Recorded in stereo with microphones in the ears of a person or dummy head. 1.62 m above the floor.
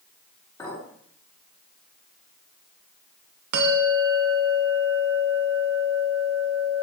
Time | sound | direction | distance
0.6 | a clink | 20° left (ahead or behind) | 3.5 m
3.5 | a bell | 55° right (ahead or behind) | 0.9 m